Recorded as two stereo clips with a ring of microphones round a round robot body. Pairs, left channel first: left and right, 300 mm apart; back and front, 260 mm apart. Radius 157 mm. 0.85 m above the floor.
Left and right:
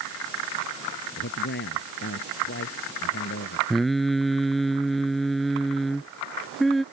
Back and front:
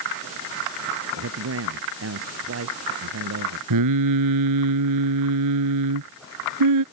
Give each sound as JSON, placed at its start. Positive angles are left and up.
{"t": 1.2, "sound": "a man speaking", "azimuth_deg": 35}
{"t": 3.7, "sound": "singing", "azimuth_deg": 0}